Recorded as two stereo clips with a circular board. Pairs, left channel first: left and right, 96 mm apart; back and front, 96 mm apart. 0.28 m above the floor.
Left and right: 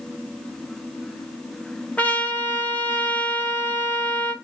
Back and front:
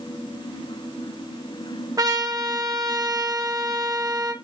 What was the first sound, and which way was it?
A trumpet, 20° left.